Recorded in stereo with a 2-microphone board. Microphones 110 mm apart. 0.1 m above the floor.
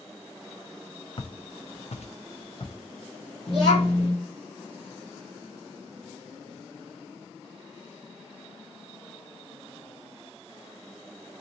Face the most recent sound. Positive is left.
turn(degrees=45)  # may be behind; listen again after turning